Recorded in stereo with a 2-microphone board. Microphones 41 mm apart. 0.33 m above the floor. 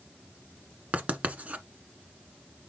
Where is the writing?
35° right (ahead or behind), 1.3 m.